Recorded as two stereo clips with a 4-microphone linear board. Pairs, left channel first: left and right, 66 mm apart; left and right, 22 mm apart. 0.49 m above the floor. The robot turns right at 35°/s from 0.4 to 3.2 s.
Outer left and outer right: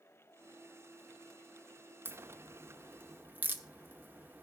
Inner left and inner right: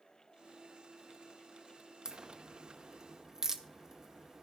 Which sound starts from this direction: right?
A crack, at 2.0 s.